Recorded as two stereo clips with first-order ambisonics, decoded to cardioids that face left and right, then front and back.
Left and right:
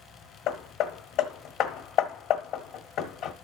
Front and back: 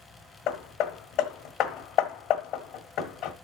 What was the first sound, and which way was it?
Hammering, 45° left.